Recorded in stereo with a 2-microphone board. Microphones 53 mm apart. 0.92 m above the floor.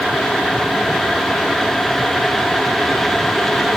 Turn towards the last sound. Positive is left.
No sound to turn to.